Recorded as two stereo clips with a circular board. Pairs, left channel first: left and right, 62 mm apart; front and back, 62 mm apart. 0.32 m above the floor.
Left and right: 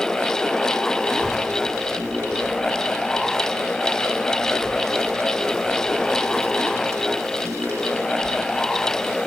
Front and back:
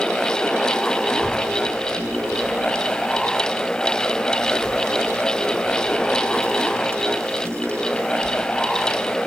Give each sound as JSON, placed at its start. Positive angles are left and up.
{"t": 1.1, "sound": "a child speaking", "azimuth_deg": -135, "distance_m": 3.5}